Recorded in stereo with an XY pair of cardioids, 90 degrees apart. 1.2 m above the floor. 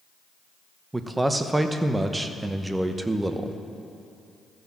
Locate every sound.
0.9 s a man speaking: 15° right, 1.0 m